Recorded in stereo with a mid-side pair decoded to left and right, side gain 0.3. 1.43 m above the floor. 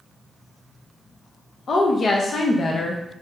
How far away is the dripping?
I don't hear dripping.